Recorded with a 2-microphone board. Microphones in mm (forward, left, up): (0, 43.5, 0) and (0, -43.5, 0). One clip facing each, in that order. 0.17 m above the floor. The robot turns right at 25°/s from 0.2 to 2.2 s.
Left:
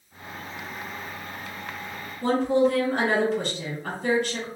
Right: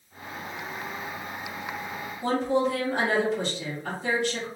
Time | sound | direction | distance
2.2 | a woman speaking | 50° left (ahead or behind) | 1.9 m